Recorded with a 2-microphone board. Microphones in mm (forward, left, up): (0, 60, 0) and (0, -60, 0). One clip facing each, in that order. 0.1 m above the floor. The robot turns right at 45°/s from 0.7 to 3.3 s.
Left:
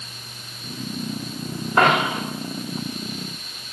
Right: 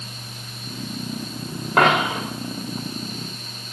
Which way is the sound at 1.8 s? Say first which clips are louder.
Even; 70° right (ahead or behind).